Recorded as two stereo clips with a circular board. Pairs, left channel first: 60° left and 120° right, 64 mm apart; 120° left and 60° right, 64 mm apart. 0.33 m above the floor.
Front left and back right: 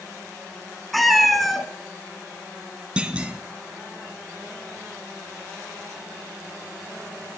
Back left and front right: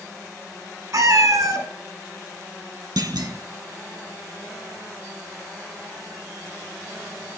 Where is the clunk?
50° right, 0.6 m.